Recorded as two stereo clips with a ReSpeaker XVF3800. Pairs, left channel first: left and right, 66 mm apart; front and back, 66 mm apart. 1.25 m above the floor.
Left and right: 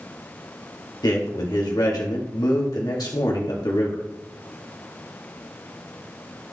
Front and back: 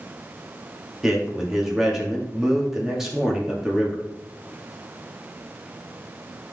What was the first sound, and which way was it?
A man speaking, 95° left.